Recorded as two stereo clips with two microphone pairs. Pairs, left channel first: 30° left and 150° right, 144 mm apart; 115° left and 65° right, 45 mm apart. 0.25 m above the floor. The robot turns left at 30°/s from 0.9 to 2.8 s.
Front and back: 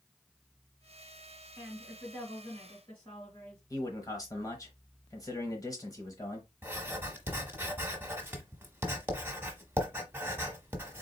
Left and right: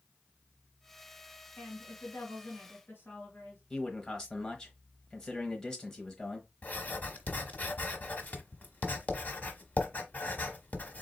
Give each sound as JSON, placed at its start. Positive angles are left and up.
{"t": 1.6, "sound": "a woman speaking", "azimuth_deg": 120, "distance_m": 3.0}
{"t": 3.7, "sound": "a man speaking", "azimuth_deg": 60, "distance_m": 1.0}
{"t": 6.6, "sound": "writing", "azimuth_deg": 145, "distance_m": 1.1}